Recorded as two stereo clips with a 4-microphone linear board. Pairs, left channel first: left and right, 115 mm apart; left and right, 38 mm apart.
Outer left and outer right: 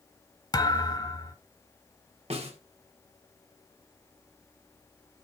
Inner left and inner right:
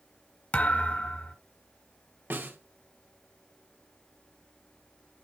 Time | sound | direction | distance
0.5 | a thud | 40° left (ahead or behind) | 1.4 m
2.3 | a snare drum | 65° right (ahead or behind) | 1.8 m